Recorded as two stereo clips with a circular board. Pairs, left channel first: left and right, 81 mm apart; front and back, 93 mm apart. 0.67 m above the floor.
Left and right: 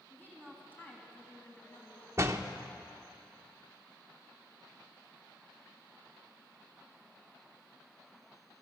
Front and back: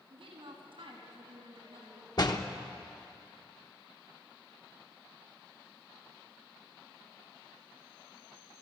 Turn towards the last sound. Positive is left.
turn(degrees=-40)